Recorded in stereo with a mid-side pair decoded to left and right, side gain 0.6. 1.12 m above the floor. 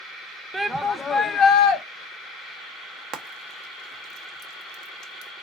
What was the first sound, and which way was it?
A shout, 15° right.